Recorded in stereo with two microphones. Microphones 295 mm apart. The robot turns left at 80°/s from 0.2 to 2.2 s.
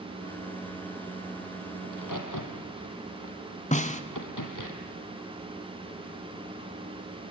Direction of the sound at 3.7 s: 25° left (ahead or behind).